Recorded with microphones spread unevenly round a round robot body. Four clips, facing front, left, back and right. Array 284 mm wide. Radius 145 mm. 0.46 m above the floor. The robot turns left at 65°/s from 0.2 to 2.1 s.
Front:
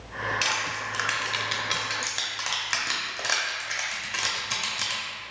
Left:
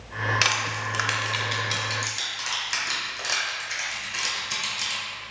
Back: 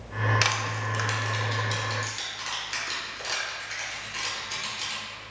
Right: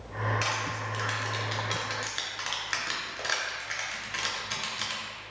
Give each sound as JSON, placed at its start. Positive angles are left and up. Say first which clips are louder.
{"t": 0.4, "sound": "crushing", "louder": "left 4 dB, back 1 dB", "azimuth_deg": 105, "distance_m": 0.6}